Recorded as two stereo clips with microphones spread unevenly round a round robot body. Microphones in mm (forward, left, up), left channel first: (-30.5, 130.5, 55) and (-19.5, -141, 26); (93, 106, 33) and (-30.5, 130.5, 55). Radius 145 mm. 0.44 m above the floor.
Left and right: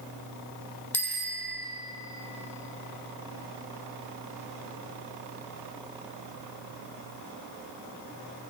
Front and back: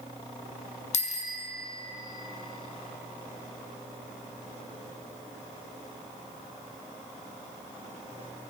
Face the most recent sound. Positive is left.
turn(degrees=5)